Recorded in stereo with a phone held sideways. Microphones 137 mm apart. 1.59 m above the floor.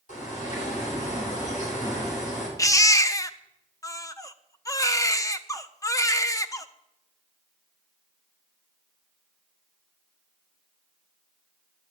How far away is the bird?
About 6 m.